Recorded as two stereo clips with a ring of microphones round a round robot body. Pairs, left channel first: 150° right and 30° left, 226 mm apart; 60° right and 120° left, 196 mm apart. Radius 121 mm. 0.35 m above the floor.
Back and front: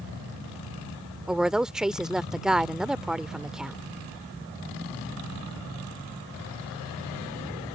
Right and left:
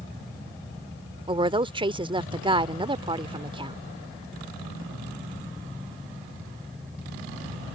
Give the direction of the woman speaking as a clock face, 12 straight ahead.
8 o'clock.